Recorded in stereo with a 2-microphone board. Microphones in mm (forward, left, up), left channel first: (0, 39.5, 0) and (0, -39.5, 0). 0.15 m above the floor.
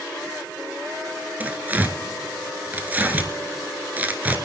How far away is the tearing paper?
About 0.8 m.